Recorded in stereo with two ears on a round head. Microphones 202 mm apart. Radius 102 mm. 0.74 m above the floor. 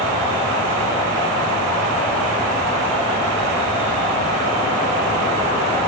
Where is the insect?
20° left (ahead or behind), 4 m.